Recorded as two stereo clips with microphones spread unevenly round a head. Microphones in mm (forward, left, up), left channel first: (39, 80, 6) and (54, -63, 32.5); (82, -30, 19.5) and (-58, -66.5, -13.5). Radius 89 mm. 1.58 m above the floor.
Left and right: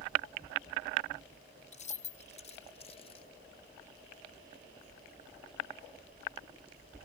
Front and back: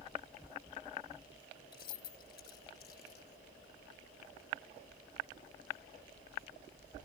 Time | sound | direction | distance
1.7 | keys jangling | 50° left | ?